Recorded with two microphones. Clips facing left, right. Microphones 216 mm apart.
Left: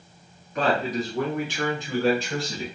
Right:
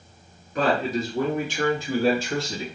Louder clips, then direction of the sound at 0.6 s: Right 1 dB; 35° right (ahead or behind).